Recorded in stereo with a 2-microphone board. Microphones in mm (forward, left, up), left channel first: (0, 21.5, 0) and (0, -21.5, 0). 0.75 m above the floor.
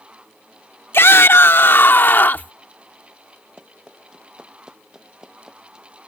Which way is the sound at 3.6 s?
20° right (ahead or behind).